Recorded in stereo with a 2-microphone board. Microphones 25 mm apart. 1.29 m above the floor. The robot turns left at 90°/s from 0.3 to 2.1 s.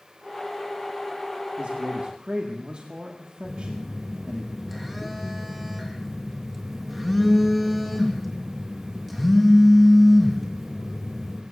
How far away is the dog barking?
No dog barking in this recording.